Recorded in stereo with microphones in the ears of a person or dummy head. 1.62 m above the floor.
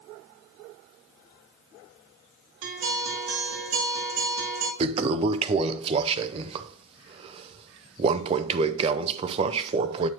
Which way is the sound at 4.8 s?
30° right (ahead or behind).